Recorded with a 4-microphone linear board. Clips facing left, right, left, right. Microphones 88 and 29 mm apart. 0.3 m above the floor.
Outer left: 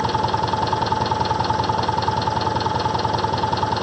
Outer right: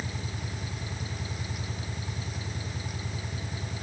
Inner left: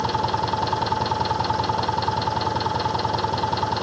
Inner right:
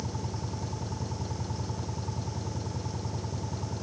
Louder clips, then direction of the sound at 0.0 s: Outer left 19 dB, inner left 15 dB; 85° left.